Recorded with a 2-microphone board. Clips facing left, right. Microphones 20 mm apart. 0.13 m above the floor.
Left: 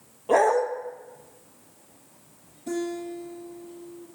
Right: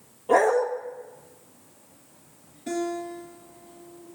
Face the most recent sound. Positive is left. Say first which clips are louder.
# right 1 dB
turn(degrees=-30)  # may be behind; listen again after turning